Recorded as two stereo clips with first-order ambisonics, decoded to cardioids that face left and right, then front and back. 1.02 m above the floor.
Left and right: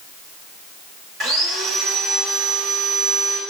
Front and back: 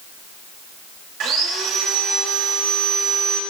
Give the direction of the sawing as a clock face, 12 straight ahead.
5 o'clock.